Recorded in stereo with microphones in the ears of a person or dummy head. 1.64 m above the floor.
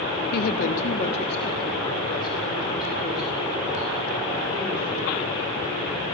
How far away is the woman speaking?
About 1.1 m.